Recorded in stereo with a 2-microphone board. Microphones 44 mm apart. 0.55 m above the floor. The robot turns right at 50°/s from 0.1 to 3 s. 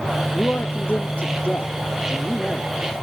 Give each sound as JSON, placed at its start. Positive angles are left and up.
{"t": 0.3, "sound": "a man speaking", "azimuth_deg": 60, "distance_m": 1.0}